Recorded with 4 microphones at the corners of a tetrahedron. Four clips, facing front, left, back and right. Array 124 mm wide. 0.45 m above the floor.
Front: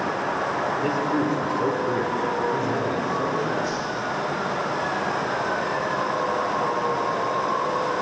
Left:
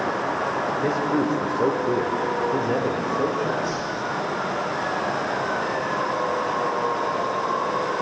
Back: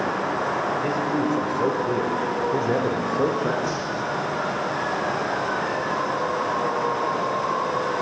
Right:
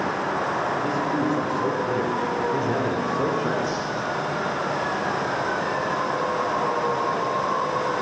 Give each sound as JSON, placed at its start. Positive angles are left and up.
{"t": 0.8, "sound": "a man speaking", "azimuth_deg": 85, "distance_m": 1.4}
{"t": 3.6, "sound": "a whoosh", "azimuth_deg": -165, "distance_m": 4.5}